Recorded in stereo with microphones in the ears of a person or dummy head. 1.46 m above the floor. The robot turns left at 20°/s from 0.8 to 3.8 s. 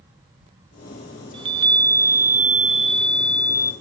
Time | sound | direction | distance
1.3 | a chime | 150° right | 0.7 m